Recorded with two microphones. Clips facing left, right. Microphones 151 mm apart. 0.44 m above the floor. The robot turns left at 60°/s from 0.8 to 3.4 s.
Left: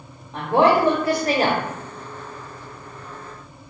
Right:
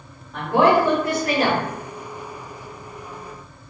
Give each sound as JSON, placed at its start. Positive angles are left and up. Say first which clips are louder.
{"t": 0.3, "sound": "a woman speaking", "louder": "even", "azimuth_deg": 145, "distance_m": 1.0}